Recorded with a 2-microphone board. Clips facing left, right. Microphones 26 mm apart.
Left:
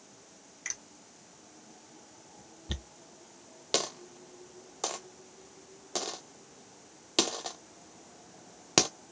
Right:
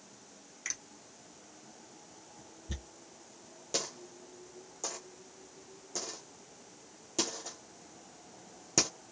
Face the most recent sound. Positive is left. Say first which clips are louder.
# left 6 dB
turn(degrees=75)  # may be behind; listen again after turning